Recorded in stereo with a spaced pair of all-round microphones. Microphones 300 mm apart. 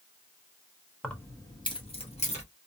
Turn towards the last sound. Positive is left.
turn(degrees=25)  # may be behind; listen again after turning